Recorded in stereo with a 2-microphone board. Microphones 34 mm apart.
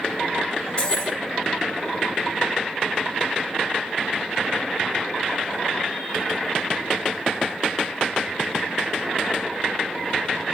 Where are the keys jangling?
30° left (ahead or behind), 1.1 m.